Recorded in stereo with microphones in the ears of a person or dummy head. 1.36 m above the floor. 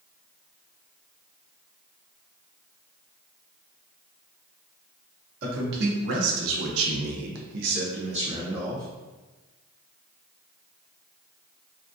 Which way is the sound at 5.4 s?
55° right (ahead or behind).